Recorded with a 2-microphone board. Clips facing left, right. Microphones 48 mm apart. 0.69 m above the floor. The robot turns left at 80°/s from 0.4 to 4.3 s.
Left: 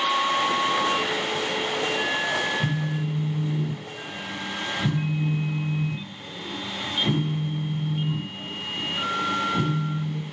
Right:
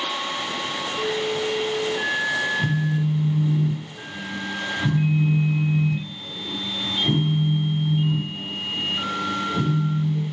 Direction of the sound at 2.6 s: 45° right.